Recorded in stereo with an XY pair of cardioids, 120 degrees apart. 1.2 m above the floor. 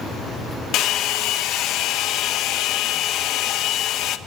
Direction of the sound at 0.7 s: 70° left.